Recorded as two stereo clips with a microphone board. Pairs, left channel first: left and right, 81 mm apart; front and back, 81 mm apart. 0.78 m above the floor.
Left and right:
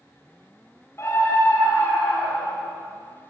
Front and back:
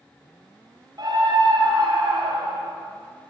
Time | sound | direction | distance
1.0 | a scream | 145° left | 4 m